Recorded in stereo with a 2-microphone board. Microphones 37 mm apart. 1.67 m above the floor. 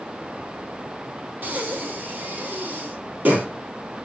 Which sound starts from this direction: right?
Breathing, at 1.4 s.